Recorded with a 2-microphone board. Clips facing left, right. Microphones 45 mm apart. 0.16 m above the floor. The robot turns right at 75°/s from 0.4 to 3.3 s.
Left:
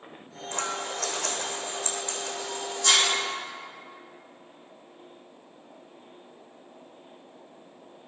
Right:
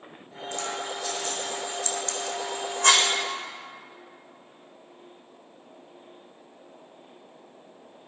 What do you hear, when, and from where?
0.5 s scissors: 45° left (ahead or behind), 1.8 m; by 3.1 s 60° right (ahead or behind), 1.8 m